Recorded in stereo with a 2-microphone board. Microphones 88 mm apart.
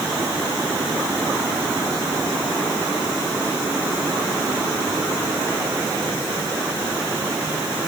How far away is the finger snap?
I don't hear a finger snap.